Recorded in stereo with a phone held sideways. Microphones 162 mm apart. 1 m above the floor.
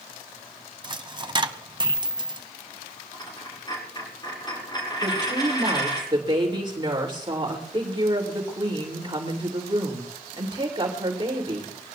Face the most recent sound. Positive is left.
turn(degrees=-30)  # may be behind; listen again after turning